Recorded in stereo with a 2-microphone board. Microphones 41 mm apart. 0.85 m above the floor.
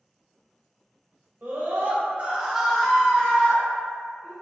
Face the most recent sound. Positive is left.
turn(degrees=30)  # may be behind; listen again after turning